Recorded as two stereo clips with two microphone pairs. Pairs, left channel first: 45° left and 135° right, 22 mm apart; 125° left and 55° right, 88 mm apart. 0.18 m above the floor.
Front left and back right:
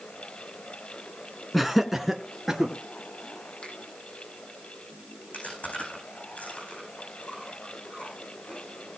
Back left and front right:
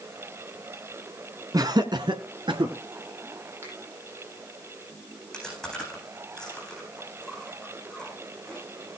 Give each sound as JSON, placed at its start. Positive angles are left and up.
{"t": 1.5, "sound": "laughter", "azimuth_deg": -45, "distance_m": 2.0}
{"t": 3.6, "sound": "a finger snap", "azimuth_deg": 10, "distance_m": 7.5}
{"t": 5.3, "sound": "chewing", "azimuth_deg": 45, "distance_m": 9.0}